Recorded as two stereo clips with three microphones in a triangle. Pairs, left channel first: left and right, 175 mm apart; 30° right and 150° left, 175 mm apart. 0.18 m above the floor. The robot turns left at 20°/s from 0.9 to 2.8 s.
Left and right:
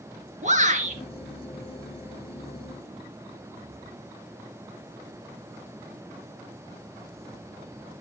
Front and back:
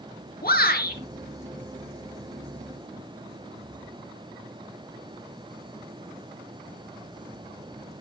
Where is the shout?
50° right, 3 m.